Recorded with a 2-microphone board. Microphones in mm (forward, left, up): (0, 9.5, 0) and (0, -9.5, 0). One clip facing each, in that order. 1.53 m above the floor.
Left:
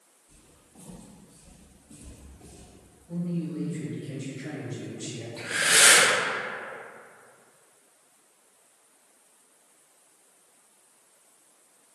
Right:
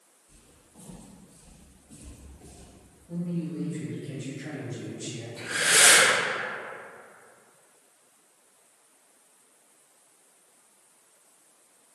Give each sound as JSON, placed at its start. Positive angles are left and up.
{"t": 0.3, "sound": "footsteps", "side_deg": -5, "distance_m": 1.9}
{"t": 3.1, "sound": "a man speaking", "side_deg": 10, "distance_m": 1.5}
{"t": 5.4, "sound": "breathing", "side_deg": 20, "distance_m": 1.9}